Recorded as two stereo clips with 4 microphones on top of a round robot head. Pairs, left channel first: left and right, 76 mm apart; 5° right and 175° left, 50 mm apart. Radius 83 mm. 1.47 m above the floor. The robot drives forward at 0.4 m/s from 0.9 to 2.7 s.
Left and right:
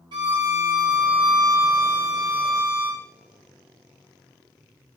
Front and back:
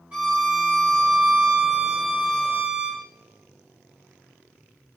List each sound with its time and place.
0.1 s a violin: 110° right, 0.6 m; by 3.0 s 155° right, 1.1 m